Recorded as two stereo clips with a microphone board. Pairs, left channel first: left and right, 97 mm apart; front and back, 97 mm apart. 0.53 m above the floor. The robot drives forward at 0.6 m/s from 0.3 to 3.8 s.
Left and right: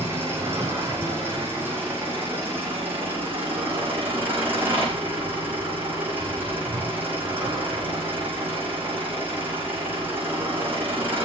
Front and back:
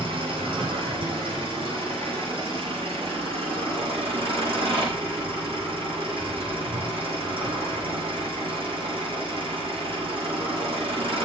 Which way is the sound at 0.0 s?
155° right.